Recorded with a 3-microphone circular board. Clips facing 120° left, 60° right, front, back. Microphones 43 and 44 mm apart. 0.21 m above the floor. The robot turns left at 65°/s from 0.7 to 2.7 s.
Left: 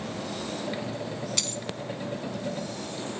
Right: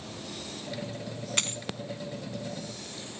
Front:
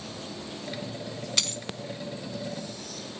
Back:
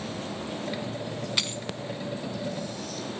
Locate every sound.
1.4 s a dropped coin: 105° right, 0.8 m; by 1.6 s 120° right, 0.8 m